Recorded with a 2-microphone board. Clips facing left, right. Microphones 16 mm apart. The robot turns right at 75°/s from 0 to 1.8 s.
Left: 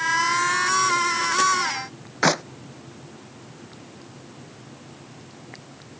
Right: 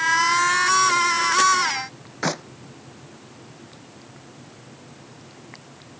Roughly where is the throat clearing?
I don't hear throat clearing.